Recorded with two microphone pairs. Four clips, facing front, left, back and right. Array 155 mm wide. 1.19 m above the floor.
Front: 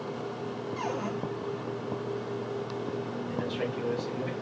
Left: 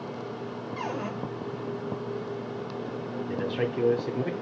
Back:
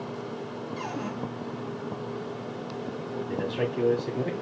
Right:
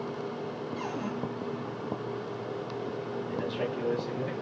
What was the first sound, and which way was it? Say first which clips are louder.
A cupboard door: left 4 dB, front 1 dB; 55° left.